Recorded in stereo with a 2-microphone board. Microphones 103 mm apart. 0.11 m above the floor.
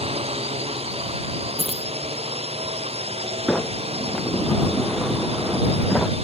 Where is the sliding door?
5° left (ahead or behind).